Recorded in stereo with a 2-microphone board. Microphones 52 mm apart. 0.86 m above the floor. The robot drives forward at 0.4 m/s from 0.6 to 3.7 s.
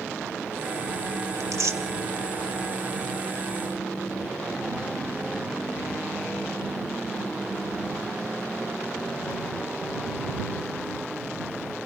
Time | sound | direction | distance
1.4 | tearing paper | 80° right | 1.4 m